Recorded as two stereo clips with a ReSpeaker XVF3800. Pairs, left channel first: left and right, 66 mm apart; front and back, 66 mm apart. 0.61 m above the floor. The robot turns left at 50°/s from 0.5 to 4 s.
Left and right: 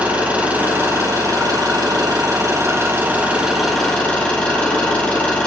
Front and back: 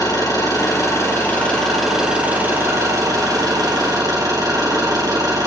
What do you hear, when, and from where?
0.0 s an engine running: 20° right, 3.5 m; by 5.5 s 165° left, 3.5 m